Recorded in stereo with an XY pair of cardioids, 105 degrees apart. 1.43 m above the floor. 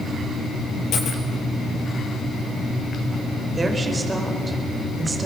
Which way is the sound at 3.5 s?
25° right.